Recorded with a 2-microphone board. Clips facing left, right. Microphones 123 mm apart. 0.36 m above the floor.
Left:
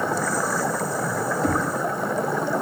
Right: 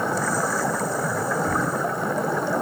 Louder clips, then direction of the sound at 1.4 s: Left 2 dB; 75° left (ahead or behind).